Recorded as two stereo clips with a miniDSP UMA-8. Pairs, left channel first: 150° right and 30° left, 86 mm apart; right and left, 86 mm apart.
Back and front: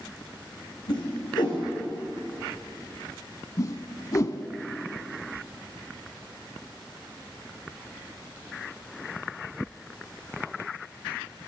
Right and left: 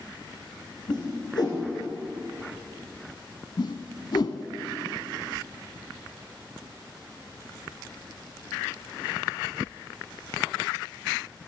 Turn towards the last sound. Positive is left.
turn(degrees=-105)